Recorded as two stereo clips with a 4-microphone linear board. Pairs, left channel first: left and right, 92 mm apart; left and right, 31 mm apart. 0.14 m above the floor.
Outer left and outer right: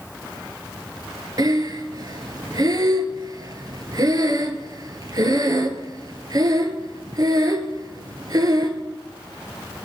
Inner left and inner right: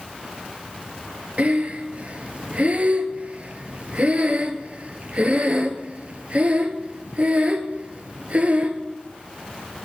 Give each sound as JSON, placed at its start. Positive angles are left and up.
{"t": 1.4, "sound": "breathing", "side_deg": -45, "distance_m": 0.6}